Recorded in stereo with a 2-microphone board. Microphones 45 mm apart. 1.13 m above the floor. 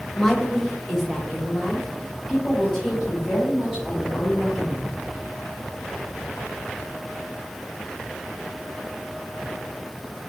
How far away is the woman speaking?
About 0.7 m.